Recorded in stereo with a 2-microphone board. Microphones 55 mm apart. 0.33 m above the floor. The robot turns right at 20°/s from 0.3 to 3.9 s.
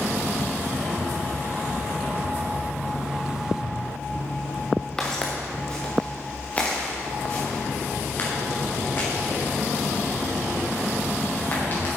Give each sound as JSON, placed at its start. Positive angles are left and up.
{"t": 5.0, "sound": "footsteps", "side_deg": 10, "distance_m": 2.0}